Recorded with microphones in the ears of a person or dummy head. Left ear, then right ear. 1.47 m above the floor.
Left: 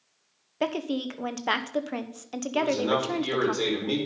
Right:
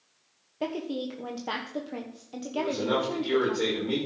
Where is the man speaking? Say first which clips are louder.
Left 3 dB; 85° left, 5 m.